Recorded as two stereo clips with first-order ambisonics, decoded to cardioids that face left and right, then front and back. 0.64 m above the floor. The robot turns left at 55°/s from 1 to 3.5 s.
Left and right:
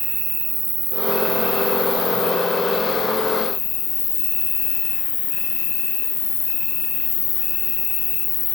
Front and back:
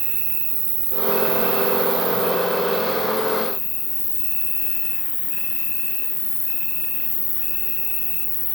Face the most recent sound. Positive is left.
turn(degrees=55)